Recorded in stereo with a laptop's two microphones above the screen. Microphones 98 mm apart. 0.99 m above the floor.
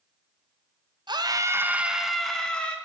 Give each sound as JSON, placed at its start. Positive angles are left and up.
{"t": 1.1, "sound": "a scream", "side_deg": -50, "distance_m": 0.9}